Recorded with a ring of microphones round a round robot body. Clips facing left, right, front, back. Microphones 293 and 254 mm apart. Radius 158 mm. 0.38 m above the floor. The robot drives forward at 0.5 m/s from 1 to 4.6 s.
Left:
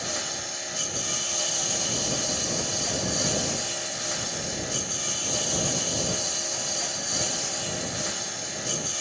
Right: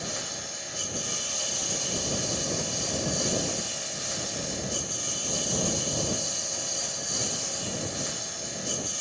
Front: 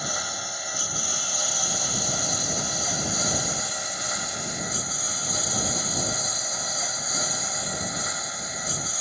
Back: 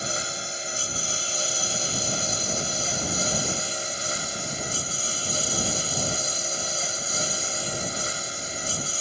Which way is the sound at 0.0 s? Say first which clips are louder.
Left 2 dB, back 2 dB; 115° left.